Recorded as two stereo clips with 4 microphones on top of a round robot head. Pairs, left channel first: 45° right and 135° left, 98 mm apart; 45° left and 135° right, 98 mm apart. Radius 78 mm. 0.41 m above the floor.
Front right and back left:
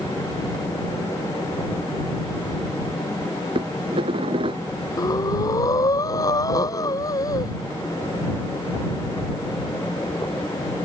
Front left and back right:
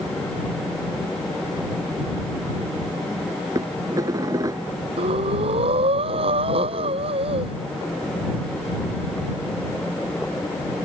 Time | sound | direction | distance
3.5 | dishes clattering | 170° left | ?
5.0 | breathing | 105° right | ?